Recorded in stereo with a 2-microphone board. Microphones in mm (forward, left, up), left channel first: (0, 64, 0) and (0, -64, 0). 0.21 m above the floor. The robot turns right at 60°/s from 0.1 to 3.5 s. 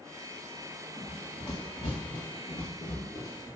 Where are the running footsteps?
20° right (ahead or behind), 1.1 m; by 3.5 s 5° left (ahead or behind), 1.8 m.